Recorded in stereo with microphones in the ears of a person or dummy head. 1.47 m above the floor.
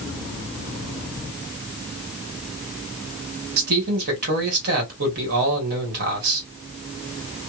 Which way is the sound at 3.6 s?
60° right (ahead or behind).